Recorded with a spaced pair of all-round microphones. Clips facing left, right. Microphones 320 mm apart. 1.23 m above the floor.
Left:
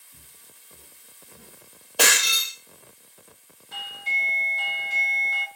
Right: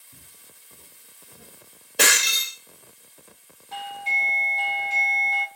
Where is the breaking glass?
25° right (ahead or behind), 1.0 m.